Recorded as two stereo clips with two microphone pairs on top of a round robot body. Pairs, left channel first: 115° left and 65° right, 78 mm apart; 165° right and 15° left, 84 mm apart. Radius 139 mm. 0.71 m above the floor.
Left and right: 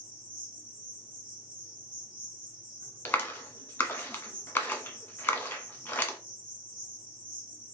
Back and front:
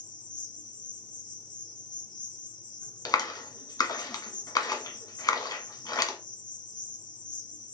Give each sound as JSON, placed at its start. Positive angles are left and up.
{"t": 0.0, "sound": "an insect", "azimuth_deg": -135, "distance_m": 3.5}
{"t": 3.0, "sound": "a clap", "azimuth_deg": 180, "distance_m": 1.4}